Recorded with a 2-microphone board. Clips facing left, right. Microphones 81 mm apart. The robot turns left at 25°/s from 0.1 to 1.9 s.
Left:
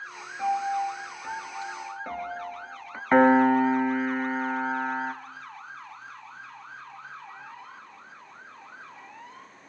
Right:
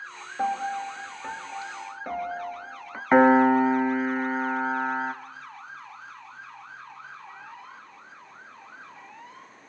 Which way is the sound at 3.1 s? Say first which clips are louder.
Right 1 dB; 10° right (ahead or behind).